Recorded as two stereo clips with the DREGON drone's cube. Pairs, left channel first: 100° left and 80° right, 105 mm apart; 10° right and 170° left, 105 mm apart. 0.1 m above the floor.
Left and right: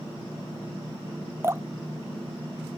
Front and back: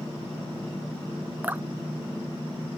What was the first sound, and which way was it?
Dripping, 125° right.